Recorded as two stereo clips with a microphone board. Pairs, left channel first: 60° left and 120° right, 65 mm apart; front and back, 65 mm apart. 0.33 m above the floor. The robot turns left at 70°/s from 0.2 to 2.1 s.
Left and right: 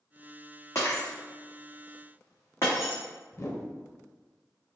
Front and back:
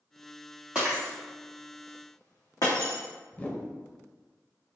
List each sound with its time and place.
0.8 s breaking glass: 105° left, 1.9 m; by 3.0 s 10° left, 1.9 m
3.3 s a whoosh: 50° left, 0.5 m